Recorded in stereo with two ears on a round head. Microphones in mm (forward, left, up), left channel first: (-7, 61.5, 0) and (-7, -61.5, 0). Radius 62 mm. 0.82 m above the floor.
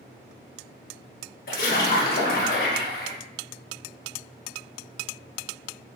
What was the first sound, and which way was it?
A splash, 70° left (ahead or behind).